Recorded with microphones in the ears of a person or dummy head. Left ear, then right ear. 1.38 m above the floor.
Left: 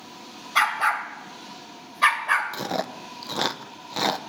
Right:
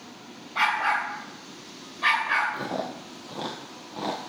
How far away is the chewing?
About 0.8 m.